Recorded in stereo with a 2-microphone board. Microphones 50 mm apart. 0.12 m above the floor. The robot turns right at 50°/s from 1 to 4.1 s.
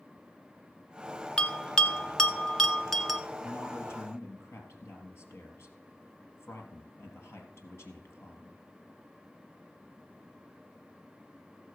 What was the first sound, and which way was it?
A bell, 20° left (ahead or behind).